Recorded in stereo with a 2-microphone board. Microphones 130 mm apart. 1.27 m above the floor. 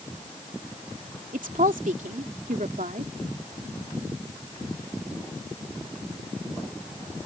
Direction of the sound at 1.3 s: 85° right.